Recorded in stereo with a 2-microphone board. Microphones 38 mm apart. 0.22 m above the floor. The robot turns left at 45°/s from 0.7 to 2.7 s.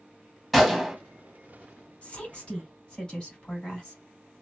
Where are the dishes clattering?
I don't hear dishes clattering.